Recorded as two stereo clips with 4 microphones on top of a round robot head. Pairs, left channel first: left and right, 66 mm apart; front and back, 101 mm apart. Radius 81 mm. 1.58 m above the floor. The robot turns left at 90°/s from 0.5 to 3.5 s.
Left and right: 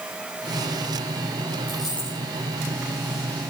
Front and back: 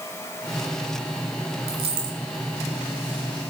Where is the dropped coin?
165° right, 2.0 m; by 2.2 s 150° left, 2.0 m.